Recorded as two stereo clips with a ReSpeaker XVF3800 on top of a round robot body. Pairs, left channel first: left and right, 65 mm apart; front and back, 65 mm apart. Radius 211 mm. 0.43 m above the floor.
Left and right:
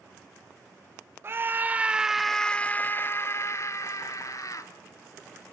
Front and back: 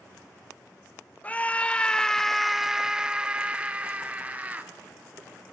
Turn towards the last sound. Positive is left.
turn(degrees=115)